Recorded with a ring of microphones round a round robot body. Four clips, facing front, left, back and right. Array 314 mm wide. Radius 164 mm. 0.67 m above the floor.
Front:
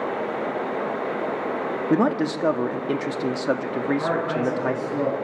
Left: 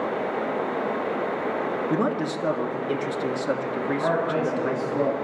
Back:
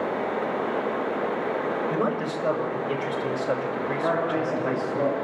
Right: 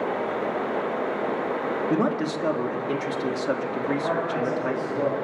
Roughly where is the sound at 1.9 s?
Ahead.